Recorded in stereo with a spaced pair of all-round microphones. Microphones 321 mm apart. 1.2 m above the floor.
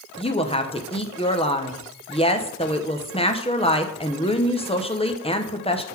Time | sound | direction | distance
0.2 | a woman speaking | 15° left (ahead or behind) | 0.8 m